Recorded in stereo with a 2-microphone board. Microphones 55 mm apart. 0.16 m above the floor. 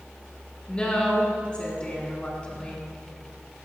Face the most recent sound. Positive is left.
turn(degrees=20)  # may be behind; listen again after turning